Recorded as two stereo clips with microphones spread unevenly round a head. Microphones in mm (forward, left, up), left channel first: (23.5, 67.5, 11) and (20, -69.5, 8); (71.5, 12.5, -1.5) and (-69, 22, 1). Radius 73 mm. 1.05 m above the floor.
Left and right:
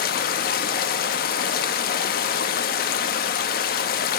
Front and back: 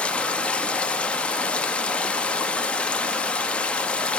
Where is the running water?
75° left, 1.3 m.